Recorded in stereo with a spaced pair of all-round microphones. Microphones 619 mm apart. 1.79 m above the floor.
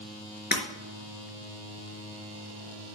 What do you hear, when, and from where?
0.5 s breaking glass: 15° left (ahead or behind), 4 m